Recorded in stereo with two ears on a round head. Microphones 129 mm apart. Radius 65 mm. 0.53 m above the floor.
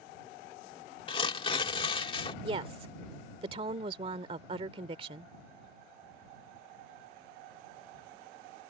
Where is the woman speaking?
40° right (ahead or behind).